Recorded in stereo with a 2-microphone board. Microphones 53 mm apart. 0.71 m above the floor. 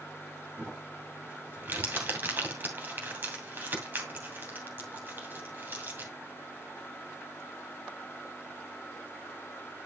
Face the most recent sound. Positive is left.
turn(degrees=-35)  # may be behind; listen again after turning